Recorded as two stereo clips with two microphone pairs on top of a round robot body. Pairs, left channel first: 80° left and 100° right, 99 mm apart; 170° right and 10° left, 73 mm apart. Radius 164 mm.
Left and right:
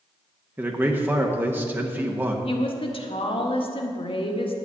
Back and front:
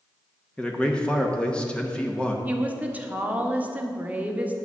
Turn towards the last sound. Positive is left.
turn(degrees=75)